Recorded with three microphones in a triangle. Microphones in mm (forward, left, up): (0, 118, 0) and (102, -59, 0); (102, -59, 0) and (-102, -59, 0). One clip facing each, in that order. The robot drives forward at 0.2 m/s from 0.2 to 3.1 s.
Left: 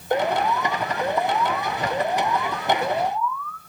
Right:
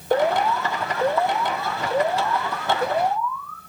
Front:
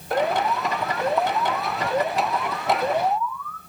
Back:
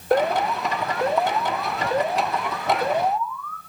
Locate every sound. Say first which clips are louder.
0.1 s an alarm: right 2 dB, back 2 dB; 135° right, 3 m; by 3.6 s 140° right, 3.5 m